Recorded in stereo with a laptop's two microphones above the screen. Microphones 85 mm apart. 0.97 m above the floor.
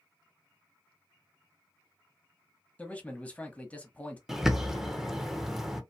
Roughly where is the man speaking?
Centre.